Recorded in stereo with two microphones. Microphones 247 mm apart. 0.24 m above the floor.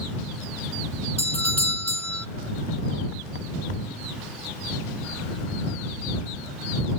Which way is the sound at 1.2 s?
80° right.